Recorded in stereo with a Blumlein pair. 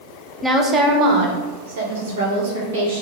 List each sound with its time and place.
0.4 s a woman speaking: 5° right, 0.6 m; by 3.0 s 65° right, 1.8 m